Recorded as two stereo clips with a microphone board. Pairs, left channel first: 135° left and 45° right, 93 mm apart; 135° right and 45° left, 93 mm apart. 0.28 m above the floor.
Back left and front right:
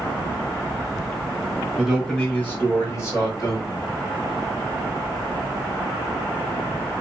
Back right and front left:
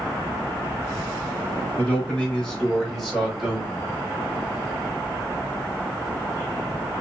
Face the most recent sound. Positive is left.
turn(degrees=125)